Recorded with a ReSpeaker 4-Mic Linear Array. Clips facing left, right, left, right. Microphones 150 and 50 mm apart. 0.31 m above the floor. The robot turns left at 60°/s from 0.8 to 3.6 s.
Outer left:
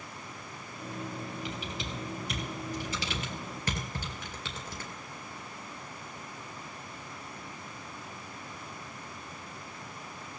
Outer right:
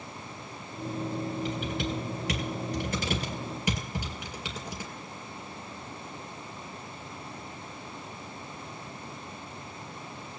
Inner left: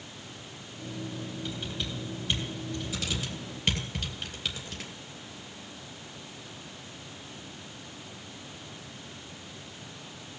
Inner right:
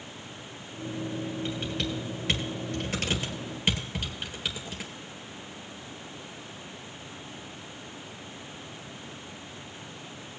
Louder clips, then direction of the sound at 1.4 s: Outer right 7 dB, inner right 4 dB; 40° right (ahead or behind).